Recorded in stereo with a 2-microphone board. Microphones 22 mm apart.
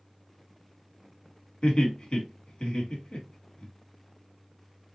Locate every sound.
1.6 s laughter: 45° left (ahead or behind), 1.5 m